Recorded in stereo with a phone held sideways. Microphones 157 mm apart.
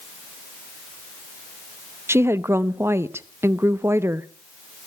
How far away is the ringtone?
No ringtone in this recording.